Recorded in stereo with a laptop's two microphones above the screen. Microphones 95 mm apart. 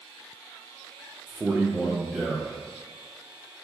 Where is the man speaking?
15° right (ahead or behind), 0.6 m; by 2.6 s 10° right (ahead or behind), 1.8 m.